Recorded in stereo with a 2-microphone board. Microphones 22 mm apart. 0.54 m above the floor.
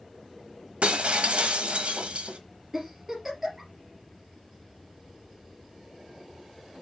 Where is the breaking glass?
60° right (ahead or behind), 0.9 m.